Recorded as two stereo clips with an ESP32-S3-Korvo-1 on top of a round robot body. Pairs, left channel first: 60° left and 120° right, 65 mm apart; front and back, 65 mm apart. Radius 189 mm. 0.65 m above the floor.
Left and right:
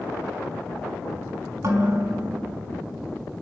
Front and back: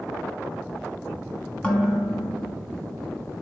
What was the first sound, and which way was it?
Dishes clattering, 70° right.